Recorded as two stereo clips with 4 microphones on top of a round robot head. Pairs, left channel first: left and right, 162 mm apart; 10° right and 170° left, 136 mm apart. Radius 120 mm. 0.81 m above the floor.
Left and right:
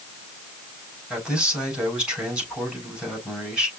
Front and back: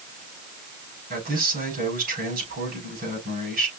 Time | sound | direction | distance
1.1 | a man speaking | 175° right | 4 m